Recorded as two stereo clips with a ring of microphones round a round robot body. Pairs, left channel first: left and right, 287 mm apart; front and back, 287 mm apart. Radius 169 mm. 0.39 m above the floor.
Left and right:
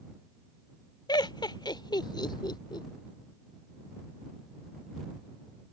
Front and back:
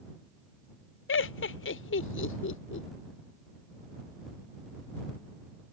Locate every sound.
1.1 s laughter: 20° left